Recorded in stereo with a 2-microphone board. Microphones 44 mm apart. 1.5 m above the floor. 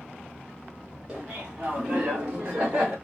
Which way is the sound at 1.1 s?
25° right (ahead or behind).